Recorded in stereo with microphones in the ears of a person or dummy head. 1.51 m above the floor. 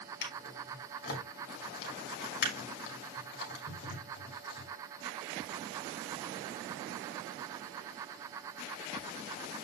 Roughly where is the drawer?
Left.